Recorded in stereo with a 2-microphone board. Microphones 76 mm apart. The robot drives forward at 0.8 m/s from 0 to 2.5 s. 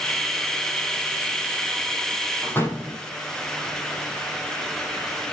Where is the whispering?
I don't hear whispering.